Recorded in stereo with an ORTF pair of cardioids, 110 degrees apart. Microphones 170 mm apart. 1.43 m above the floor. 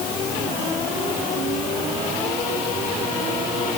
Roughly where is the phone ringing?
No phone ringing in this recording.